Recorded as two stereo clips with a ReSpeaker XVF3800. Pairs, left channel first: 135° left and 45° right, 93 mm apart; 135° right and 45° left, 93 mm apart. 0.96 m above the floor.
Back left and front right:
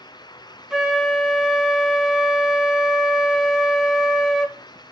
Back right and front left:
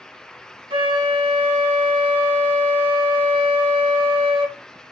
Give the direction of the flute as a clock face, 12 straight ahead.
11 o'clock.